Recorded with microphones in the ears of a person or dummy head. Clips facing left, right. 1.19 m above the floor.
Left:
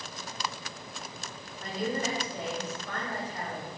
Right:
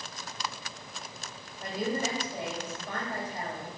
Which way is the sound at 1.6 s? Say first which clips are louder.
Even; 15° right (ahead or behind).